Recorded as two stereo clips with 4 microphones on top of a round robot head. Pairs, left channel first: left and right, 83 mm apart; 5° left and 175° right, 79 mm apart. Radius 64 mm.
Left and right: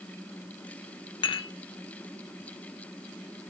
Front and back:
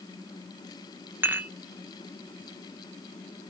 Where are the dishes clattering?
120° left, 0.9 m.